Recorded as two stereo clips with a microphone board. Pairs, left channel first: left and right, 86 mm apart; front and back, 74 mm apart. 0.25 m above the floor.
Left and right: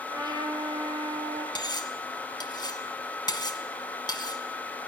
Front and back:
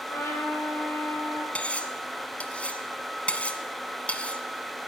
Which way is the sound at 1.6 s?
70° left.